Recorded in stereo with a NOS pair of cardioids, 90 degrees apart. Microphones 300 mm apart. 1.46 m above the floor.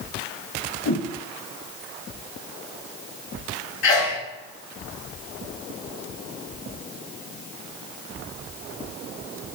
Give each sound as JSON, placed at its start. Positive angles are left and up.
{"t": 0.8, "sound": "a whoosh", "azimuth_deg": 50, "distance_m": 1.1}
{"t": 3.8, "sound": "a sneeze", "azimuth_deg": 65, "distance_m": 3.5}